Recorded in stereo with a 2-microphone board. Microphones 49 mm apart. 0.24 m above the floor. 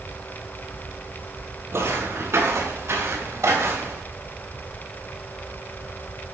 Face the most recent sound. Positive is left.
turn(degrees=-85)